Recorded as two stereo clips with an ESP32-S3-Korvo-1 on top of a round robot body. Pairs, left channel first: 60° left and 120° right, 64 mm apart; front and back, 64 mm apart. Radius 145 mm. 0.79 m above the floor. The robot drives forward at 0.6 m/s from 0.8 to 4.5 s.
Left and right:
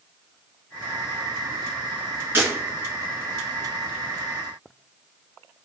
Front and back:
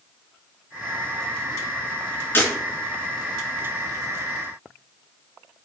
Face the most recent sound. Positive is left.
turn(degrees=-75)